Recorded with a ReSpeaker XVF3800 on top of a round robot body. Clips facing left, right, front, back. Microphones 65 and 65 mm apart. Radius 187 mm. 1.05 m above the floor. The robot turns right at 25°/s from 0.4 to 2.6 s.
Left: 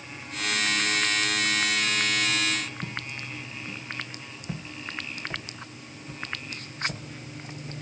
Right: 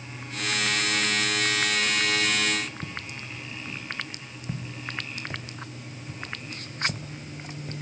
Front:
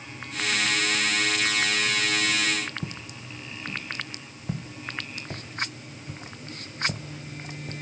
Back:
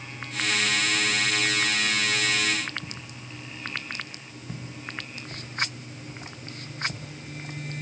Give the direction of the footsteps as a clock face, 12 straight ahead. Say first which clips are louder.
Left 1 dB, front 3 dB; 12 o'clock.